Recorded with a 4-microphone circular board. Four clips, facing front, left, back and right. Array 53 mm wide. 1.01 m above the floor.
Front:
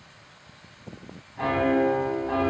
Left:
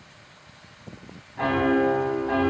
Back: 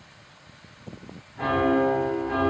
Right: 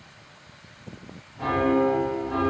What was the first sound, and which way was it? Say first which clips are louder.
A piano: left 1 dB, back 1 dB; 70° left.